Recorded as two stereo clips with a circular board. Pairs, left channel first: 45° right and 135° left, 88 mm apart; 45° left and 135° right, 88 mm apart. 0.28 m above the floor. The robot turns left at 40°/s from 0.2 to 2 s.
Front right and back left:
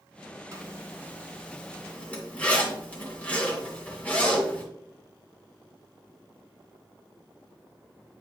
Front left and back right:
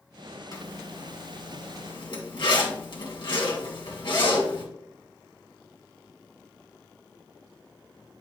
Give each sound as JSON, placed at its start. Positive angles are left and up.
{"t": 0.5, "sound": "a zipper", "azimuth_deg": 85, "distance_m": 2.0}